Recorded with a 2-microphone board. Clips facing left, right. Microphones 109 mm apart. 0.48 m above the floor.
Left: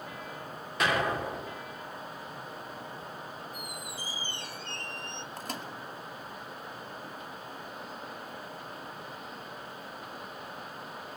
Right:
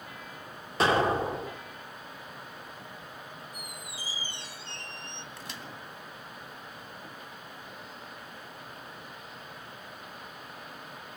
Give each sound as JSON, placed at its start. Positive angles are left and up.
{"t": 0.8, "sound": "an explosion", "side_deg": -30, "distance_m": 1.5}
{"t": 3.5, "sound": "a squeak", "side_deg": 50, "distance_m": 0.6}
{"t": 5.4, "sound": "a microwave", "side_deg": 45, "distance_m": 2.5}